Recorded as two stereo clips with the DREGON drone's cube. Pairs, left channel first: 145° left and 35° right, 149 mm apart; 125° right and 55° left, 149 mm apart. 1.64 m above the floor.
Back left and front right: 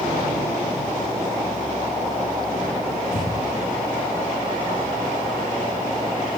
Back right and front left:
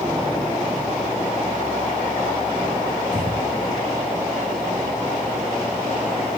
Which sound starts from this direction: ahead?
Breathing, at 3.1 s.